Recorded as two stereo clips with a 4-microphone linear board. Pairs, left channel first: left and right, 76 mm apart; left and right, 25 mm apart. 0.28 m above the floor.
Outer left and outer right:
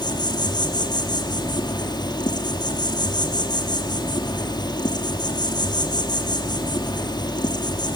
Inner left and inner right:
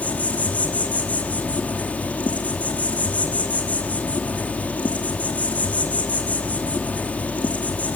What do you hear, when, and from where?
0.0 s an insect: 70° left (ahead or behind), 3 m